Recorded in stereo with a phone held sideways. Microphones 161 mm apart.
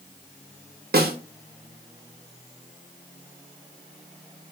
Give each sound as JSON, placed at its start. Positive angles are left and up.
{"t": 0.9, "sound": "a snare drum", "side_deg": -75, "distance_m": 0.5}